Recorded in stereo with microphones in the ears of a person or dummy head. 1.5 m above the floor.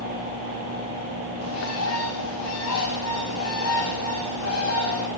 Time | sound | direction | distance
1.4 | a bird | 85° left | 5 m